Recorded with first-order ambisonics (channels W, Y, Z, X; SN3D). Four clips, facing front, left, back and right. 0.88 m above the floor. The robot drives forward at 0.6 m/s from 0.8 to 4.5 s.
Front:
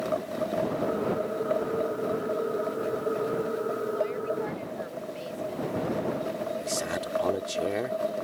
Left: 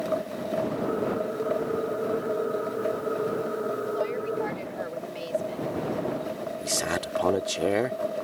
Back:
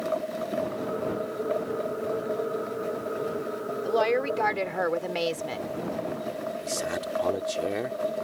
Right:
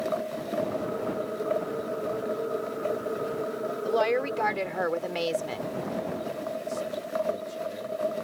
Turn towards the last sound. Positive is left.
turn(degrees=90)